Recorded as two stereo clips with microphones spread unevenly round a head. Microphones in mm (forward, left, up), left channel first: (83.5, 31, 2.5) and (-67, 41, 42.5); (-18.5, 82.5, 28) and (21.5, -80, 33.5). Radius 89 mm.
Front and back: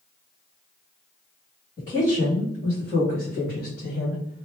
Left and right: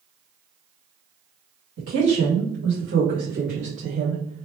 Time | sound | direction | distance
1.8 | a woman speaking | 65° right | 1.8 m